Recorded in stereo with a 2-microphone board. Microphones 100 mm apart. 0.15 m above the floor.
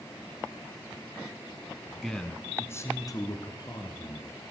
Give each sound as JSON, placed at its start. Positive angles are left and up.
{"t": 2.0, "sound": "a man speaking", "side_deg": 0, "distance_m": 1.7}